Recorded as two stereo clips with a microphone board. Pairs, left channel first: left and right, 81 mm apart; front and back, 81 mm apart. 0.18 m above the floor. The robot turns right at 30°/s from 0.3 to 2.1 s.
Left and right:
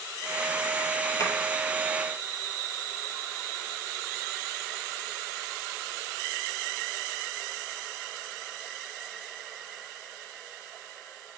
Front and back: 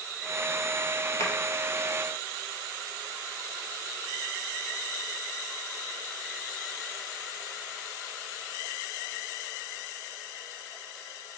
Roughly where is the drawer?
Ahead left.